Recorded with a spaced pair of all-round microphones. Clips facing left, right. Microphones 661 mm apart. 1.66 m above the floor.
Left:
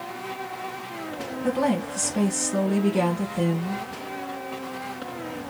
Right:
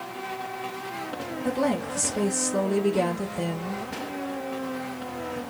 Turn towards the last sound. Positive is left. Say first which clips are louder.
# left 2 dB
turn(degrees=75)  # may be behind; listen again after turning